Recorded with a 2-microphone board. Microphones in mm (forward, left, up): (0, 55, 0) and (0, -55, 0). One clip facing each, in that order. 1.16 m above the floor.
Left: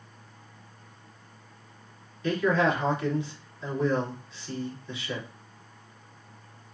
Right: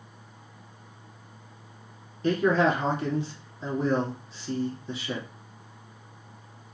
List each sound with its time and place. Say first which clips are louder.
2.2 s a man speaking: right 2 dB; 40° right (ahead or behind), 2.5 m